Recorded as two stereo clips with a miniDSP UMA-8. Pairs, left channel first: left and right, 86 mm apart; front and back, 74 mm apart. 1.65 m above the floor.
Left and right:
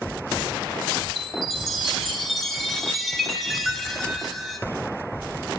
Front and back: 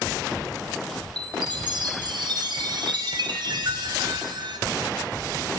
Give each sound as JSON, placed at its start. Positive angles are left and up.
{"t": 1.2, "sound": "a chime", "azimuth_deg": 180, "distance_m": 0.9}